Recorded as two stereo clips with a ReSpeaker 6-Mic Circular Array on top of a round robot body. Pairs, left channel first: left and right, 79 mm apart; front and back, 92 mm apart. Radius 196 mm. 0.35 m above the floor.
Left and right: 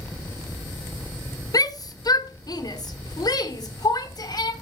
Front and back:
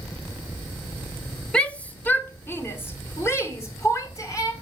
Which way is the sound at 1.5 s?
80° left.